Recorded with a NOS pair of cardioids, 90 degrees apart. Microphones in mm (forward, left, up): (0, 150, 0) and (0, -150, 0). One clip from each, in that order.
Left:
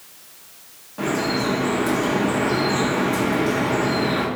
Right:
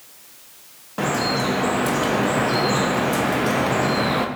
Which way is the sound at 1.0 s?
40° right.